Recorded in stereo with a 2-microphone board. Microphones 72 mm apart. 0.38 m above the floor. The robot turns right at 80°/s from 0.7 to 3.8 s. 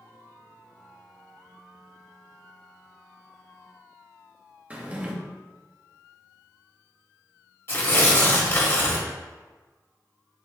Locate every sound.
4.7 s a drawer: 20° right (ahead or behind), 0.5 m
7.7 s tearing paper: 35° left (ahead or behind), 0.8 m